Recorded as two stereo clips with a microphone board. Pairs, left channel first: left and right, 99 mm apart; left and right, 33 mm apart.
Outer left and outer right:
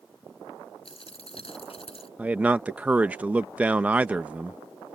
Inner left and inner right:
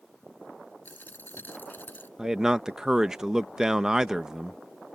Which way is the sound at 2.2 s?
15° right (ahead or behind).